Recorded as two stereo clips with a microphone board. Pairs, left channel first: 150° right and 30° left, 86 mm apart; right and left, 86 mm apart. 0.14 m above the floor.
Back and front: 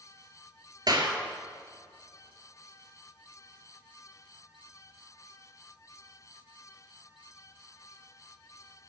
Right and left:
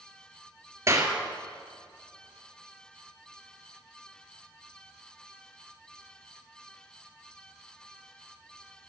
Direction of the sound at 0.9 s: 45° left.